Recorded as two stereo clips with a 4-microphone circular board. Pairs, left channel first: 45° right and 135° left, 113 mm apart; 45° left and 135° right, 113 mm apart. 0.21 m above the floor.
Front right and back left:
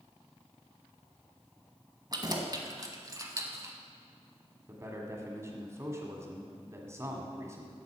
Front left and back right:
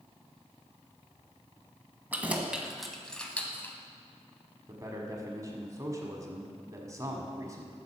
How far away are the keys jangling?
About 1.3 m.